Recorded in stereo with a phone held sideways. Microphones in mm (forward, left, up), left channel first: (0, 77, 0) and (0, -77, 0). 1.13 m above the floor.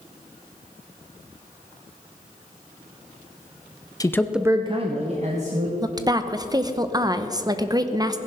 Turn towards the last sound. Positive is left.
turn(degrees=-25)  # may be behind; listen again after turning